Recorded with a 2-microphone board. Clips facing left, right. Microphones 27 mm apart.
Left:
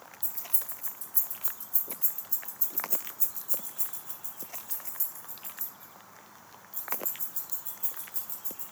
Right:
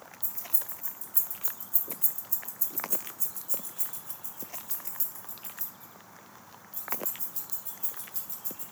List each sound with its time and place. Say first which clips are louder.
0.2 s keys jangling: left 1 dB; 60° left (ahead or behind), 2 m; by 8.6 s 35° right (ahead or behind), 4 m